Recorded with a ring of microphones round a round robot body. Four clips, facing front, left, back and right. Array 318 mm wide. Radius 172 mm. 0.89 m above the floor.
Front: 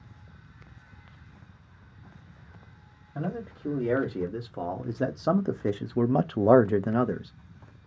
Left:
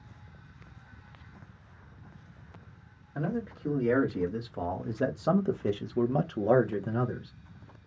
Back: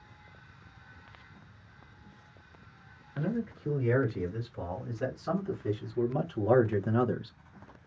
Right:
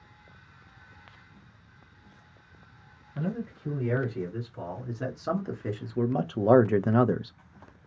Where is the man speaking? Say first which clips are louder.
Even, back 1 dB; 35° left, 2 m; by 7.4 s 90° right, 0.6 m.